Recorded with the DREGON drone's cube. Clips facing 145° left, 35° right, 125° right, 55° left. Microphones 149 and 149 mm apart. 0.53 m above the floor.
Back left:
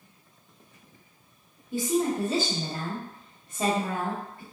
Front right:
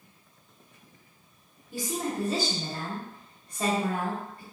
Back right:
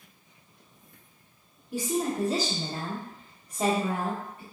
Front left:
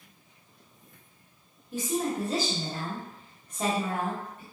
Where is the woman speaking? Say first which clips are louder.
Back left 6 dB, back right 1 dB; 170° left, 1.0 m.